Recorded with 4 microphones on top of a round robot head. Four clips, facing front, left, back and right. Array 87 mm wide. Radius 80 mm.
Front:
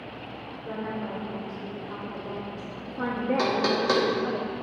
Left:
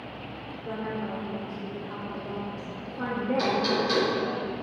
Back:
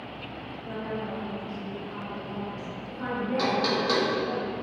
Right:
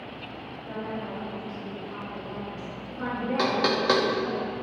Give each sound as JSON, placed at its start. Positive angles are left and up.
{"t": 0.7, "sound": "a woman speaking", "azimuth_deg": 60, "distance_m": 3.0}
{"t": 3.4, "sound": "knocking", "azimuth_deg": -70, "distance_m": 1.8}